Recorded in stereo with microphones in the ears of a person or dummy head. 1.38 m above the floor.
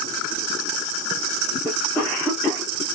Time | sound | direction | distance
1.6 | a cough | 5° right (ahead or behind) | 1.3 m